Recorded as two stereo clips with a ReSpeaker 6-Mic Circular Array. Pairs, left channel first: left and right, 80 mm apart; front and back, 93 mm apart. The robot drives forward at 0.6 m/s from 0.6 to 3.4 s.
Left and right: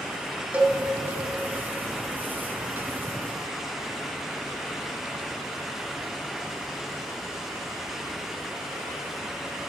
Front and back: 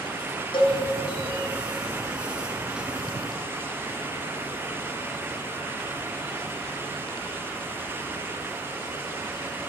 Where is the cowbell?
15° right, 1.9 m.